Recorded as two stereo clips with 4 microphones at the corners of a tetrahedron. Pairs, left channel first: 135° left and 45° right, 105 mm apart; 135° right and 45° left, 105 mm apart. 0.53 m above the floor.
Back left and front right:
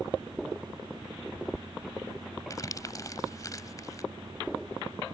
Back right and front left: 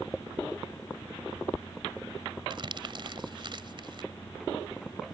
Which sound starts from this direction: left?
Crumpling, at 2.5 s.